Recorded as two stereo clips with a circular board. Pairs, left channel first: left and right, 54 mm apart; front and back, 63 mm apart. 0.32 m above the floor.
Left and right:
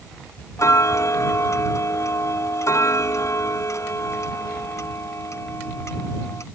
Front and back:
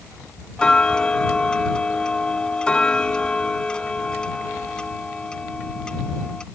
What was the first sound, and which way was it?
Ticking, 75° left.